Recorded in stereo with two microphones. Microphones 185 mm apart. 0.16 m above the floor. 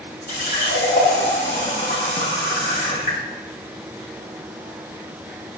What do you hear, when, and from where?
0.3 s a running tap: 45° left (ahead or behind), 6.5 m